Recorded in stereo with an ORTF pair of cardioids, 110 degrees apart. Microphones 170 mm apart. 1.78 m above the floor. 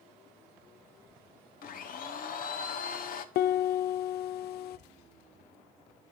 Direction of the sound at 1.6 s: 55° left.